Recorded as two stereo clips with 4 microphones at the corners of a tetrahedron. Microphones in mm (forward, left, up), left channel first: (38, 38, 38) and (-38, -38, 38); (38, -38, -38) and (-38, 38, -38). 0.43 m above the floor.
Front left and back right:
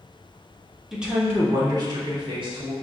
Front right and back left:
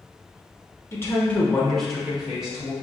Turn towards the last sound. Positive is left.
turn(degrees=-150)